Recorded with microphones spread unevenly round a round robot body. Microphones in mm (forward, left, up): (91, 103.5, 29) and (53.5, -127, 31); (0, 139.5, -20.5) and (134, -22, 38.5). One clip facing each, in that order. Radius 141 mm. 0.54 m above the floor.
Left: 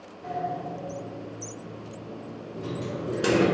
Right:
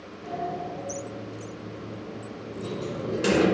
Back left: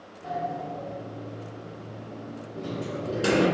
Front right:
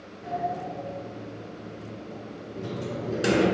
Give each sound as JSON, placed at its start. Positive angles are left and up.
{"t": 0.2, "sound": "a sliding door", "azimuth_deg": 30, "distance_m": 1.2}